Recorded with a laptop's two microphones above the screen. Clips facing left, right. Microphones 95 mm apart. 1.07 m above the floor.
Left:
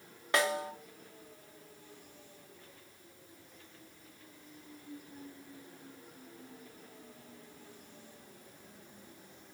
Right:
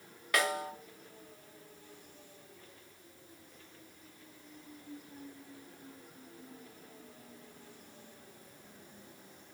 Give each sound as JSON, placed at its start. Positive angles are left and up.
{"t": 0.3, "sound": "a snare drum", "side_deg": 25, "distance_m": 0.7}